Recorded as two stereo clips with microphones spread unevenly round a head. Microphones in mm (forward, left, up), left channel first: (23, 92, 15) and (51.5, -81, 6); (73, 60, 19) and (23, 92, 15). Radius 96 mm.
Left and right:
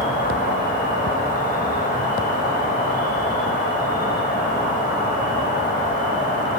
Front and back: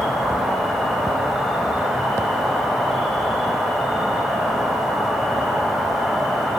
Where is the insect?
60° left, 2 m.